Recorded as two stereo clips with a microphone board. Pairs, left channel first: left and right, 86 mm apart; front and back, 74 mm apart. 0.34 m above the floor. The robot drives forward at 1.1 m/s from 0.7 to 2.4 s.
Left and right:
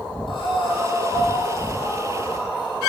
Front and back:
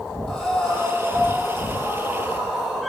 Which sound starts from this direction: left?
Breathing, at 0.3 s.